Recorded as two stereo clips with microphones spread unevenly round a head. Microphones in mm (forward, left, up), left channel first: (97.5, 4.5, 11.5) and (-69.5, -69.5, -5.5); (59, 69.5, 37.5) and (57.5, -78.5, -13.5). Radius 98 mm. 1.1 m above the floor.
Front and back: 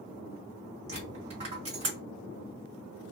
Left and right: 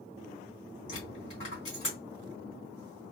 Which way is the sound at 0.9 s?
140° left.